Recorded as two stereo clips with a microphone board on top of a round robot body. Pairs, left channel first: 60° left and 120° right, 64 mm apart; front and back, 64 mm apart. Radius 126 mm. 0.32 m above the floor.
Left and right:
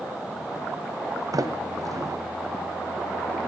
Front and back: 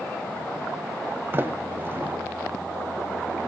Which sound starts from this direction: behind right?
A sliding door, at 1.3 s.